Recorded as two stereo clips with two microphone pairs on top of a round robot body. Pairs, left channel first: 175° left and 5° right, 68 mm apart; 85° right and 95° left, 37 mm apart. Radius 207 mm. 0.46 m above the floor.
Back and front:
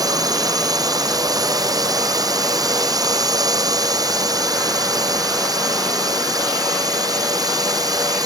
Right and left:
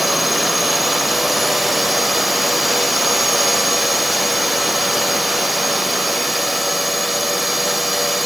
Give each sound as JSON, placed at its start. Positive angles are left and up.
{"t": 0.0, "sound": "a drone", "azimuth_deg": 5}